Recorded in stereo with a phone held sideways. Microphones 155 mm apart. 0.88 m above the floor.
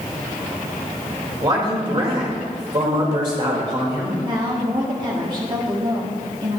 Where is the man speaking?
35° right (ahead or behind), 4 m.